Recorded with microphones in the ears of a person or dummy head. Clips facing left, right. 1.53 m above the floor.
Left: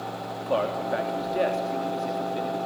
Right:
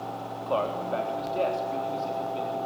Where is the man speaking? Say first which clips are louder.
Left 2 dB; 30° left (ahead or behind), 3.5 m.